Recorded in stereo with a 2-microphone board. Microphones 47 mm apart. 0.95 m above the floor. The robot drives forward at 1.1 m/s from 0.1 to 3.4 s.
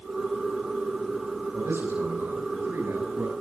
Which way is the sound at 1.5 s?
65° right (ahead or behind).